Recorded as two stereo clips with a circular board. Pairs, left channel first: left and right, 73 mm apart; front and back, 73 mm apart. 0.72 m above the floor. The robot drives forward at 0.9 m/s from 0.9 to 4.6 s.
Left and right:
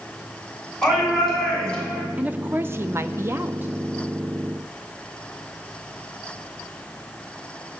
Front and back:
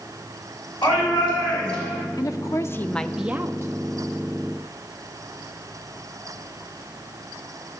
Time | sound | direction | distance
0.8 | a shout | 10° left | 7.5 m
2.2 | a woman speaking | 20° right | 1.0 m